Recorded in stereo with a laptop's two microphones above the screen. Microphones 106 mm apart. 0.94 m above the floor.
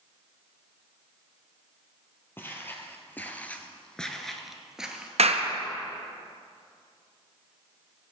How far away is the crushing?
I don't hear crushing.